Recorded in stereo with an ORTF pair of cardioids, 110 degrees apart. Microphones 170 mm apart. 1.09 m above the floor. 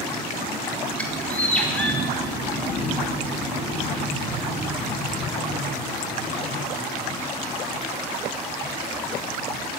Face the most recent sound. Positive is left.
turn(degrees=10)